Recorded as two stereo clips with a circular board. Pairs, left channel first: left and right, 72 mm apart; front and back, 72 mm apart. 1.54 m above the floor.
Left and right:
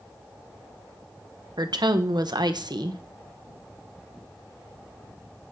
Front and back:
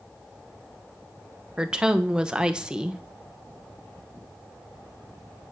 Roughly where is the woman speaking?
Right.